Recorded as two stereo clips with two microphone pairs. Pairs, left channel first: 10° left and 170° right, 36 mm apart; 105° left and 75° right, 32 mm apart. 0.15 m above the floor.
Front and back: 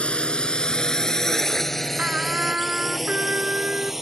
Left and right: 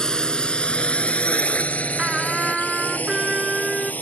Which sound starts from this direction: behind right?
A trumpet, at 2.0 s.